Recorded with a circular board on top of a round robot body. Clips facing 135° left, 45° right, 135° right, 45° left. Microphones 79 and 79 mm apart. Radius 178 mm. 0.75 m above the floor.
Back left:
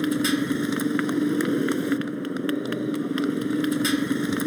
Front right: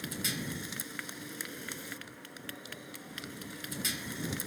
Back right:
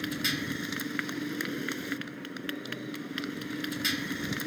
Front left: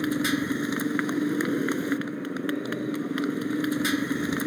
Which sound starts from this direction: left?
A motorcycle, at 0.0 s.